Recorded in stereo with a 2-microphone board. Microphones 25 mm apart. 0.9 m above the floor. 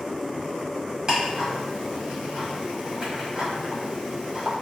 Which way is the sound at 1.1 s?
25° right (ahead or behind).